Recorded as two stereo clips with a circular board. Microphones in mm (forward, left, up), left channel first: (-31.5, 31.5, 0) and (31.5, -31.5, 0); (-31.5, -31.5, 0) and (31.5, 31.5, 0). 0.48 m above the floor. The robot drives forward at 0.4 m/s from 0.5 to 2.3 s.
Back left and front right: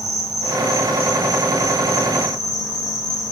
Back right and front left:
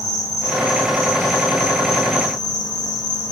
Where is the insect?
Straight behind, 4 m.